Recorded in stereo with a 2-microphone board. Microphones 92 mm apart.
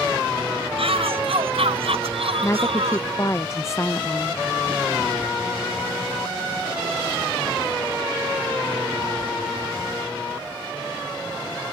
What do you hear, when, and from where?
0.8 s a shout: 80° right; by 3.1 s 85° right
2.4 s a woman speaking: 30° left (ahead or behind)